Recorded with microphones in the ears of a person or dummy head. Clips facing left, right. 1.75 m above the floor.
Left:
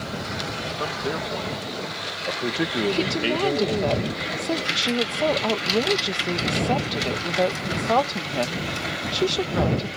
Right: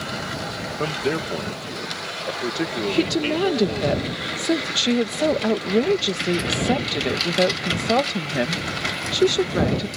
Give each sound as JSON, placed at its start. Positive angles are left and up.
{"t": 0.8, "sound": "a man speaking", "side_deg": -35}
{"t": 2.9, "sound": "a woman speaking", "side_deg": -25}